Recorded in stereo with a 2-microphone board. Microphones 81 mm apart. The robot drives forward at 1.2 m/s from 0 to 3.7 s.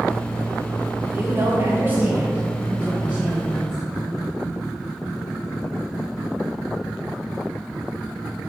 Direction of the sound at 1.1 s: 30° right (ahead or behind).